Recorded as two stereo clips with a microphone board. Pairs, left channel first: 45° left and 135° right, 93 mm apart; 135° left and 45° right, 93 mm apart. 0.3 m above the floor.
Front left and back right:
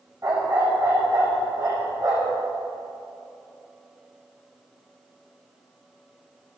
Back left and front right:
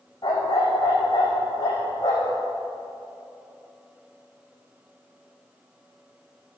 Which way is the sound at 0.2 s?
175° right.